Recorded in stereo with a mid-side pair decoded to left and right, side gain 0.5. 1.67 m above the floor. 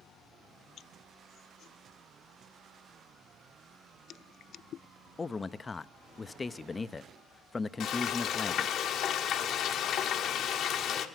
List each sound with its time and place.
5.2 s a man speaking: 20° left, 0.6 m
7.8 s frying: 65° left, 1.5 m